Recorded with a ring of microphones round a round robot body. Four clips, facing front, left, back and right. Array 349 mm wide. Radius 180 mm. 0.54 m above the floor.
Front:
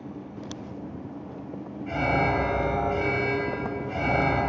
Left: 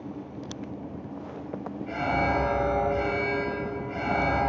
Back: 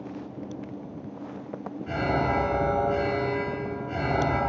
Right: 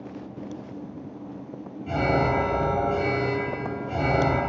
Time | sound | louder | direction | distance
1.9 | an alarm | right 4 dB, front 1 dB | 115° right | 9.5 m